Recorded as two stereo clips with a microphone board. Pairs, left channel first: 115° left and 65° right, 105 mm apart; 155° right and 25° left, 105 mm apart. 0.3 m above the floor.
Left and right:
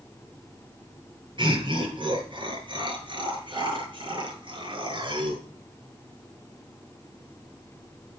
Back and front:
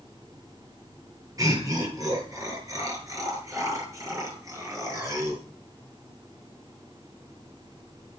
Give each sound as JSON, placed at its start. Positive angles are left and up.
{"t": 1.4, "sound": "laughter", "azimuth_deg": -30, "distance_m": 7.0}